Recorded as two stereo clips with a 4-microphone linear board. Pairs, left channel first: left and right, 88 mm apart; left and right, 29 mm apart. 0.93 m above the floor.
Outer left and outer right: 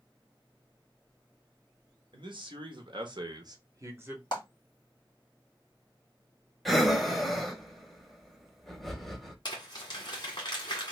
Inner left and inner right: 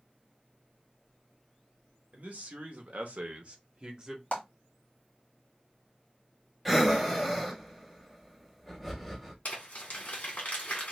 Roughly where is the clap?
Left.